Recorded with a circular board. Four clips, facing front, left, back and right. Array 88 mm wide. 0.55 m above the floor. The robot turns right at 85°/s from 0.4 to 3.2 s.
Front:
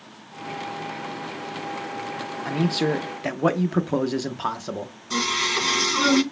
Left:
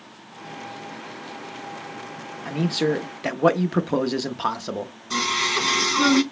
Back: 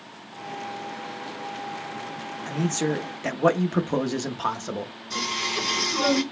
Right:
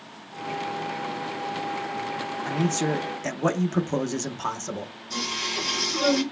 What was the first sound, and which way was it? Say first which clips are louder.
A man speaking: left 3 dB, front 3 dB; 15° left.